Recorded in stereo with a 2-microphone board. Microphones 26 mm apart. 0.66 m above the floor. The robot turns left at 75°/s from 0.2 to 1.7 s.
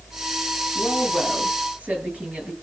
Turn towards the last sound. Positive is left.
turn(degrees=-65)